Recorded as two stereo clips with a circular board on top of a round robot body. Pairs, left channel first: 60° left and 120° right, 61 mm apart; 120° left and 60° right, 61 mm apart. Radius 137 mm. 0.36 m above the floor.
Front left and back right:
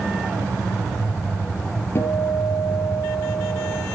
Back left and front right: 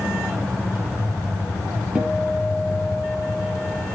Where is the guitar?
15° left, 4.5 m.